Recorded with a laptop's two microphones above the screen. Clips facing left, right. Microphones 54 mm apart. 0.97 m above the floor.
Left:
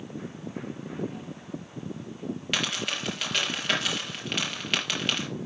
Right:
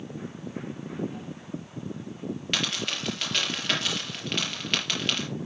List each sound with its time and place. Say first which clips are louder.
2.5 s a dropped coin: left 1 dB; 5° left (ahead or behind), 5 m